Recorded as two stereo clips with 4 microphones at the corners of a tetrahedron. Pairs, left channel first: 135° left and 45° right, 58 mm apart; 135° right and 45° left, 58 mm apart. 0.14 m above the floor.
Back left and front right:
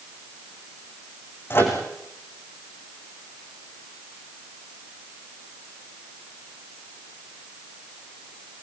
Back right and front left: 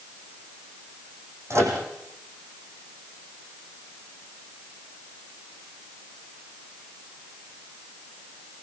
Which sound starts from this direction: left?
A microwave, at 1.5 s.